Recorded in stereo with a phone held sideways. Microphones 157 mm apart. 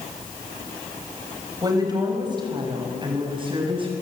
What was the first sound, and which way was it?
A woman speaking, 25° right (ahead or behind).